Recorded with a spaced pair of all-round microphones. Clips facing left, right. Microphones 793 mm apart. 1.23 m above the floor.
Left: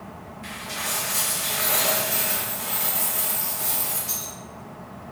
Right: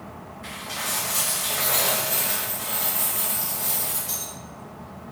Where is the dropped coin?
40° left (ahead or behind), 2.0 m.